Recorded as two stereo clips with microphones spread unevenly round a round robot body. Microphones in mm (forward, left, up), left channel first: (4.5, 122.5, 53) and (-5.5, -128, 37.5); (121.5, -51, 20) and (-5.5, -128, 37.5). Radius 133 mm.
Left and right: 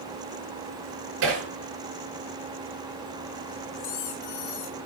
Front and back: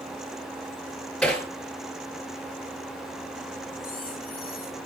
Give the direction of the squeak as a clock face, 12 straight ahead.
9 o'clock.